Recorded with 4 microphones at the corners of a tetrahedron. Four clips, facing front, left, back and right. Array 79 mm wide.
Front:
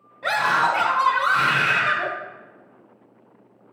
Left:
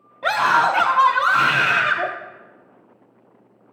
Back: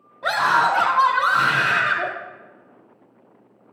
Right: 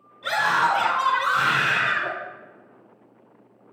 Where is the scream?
90° left, 3.5 m.